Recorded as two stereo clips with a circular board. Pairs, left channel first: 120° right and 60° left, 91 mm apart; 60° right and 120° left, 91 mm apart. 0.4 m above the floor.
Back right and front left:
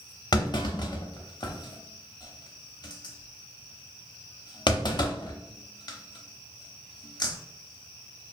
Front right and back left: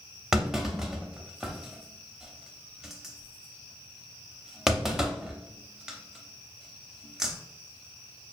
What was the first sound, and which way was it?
A clunk, 155° right.